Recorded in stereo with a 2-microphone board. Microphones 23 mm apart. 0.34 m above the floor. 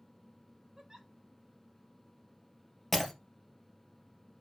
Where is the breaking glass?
5° left (ahead or behind), 2 m.